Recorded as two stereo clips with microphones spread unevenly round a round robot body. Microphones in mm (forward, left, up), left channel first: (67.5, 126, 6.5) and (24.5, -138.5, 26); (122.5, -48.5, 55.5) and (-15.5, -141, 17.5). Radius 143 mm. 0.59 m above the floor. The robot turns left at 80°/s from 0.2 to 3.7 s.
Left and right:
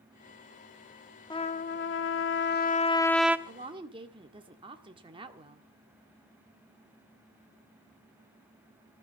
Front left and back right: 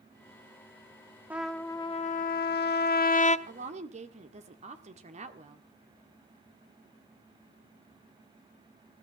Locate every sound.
1.3 s a trumpet: 150° left, 0.9 m; by 3.4 s 15° right, 0.9 m
3.5 s a woman speaking: 155° right, 1.4 m; by 5.6 s 175° right, 1.4 m